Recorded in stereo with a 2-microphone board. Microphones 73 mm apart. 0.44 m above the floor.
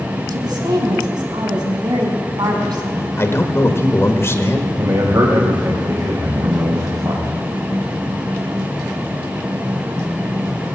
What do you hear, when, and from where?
0.3 s a woman speaking: 70° right (ahead or behind), 3 m
3.2 s a man speaking: 35° left (ahead or behind), 1.3 m
4.8 s a man speaking: 55° right (ahead or behind), 2.5 m